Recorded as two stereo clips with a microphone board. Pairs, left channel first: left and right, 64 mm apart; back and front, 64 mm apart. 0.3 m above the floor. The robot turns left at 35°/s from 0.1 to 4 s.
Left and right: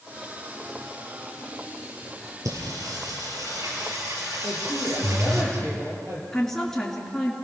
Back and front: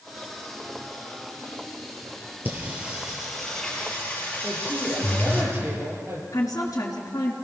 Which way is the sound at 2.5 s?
60° right.